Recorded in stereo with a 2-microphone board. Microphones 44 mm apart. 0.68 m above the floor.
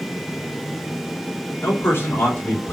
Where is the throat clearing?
I don't hear throat clearing.